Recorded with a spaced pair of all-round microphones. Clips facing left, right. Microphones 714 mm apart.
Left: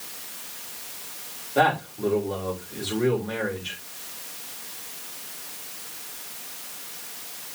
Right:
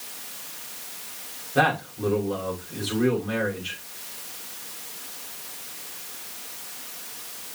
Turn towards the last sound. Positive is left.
turn(degrees=-45)  # may be behind; listen again after turning